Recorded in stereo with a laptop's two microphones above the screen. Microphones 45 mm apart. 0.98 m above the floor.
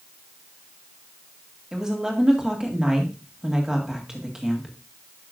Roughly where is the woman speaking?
Centre.